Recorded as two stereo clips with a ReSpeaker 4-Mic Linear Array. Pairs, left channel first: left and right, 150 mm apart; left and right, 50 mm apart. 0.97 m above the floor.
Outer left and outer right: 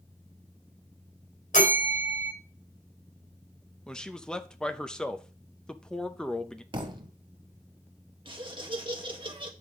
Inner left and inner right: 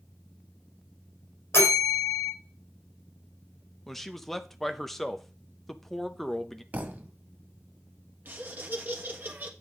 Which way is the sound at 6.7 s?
35° right (ahead or behind).